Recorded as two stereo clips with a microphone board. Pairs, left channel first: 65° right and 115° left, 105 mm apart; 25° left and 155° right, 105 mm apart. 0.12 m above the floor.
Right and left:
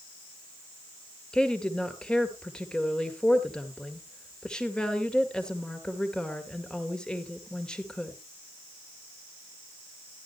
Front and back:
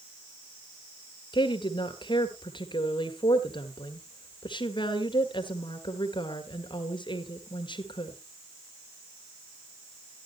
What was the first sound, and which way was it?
A woman speaking, 15° left.